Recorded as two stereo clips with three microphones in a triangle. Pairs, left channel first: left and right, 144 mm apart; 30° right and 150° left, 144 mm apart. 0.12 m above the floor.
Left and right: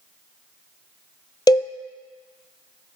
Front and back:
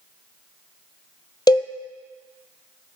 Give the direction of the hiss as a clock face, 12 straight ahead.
I don't hear a hiss.